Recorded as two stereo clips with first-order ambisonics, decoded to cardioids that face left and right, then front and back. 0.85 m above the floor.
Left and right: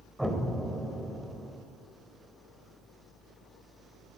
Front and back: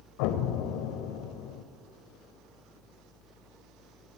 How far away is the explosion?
About 2 m.